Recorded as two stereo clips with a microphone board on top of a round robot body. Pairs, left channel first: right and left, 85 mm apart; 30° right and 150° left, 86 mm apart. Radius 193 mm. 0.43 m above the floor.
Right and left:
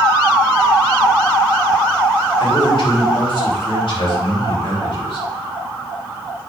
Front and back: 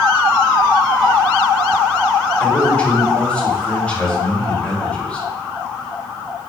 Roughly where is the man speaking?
Right.